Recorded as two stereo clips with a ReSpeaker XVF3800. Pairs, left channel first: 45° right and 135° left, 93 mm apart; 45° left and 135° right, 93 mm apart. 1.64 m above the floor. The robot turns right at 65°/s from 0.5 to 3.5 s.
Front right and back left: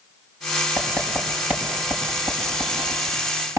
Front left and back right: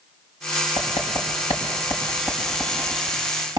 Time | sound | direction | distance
0.8 | writing | 10° left | 6 m